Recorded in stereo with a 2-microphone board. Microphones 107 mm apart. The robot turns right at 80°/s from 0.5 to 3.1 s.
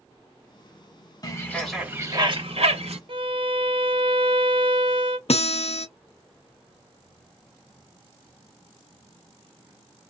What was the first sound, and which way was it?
A bird, 145° left.